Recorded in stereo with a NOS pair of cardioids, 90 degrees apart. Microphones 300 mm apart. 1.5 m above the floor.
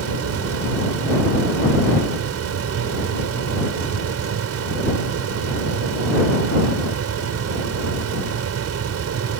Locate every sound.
0.0 s a fan: 60° right